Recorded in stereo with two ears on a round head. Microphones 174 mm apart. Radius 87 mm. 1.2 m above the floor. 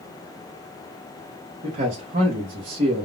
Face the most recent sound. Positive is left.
turn(degrees=-40)  # may be behind; listen again after turning